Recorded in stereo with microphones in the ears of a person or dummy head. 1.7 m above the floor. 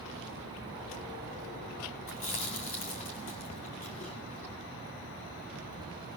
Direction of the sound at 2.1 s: 40° left (ahead or behind).